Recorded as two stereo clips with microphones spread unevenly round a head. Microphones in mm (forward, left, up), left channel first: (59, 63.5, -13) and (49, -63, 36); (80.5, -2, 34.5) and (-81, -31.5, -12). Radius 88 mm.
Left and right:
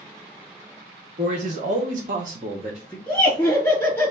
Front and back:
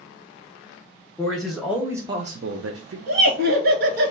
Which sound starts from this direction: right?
A man speaking, at 1.2 s.